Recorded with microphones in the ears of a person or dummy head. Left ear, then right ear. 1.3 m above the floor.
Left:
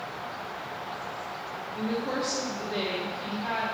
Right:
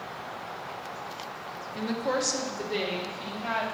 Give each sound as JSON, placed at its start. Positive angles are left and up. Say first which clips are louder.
{"t": 1.8, "sound": "a woman speaking", "louder": "right 2 dB", "side_deg": -80, "distance_m": 1.2}